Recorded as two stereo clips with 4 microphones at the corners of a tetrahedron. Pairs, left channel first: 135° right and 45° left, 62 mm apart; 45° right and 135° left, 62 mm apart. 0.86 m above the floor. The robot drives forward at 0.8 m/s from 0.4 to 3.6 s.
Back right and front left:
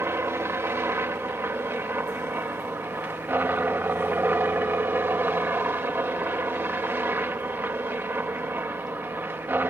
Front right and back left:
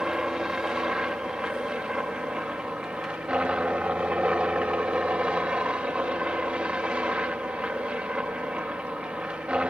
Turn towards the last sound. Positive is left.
turn(degrees=75)